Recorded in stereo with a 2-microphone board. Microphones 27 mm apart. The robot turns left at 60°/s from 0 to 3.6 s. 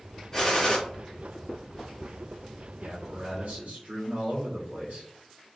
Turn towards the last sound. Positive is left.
turn(degrees=-95)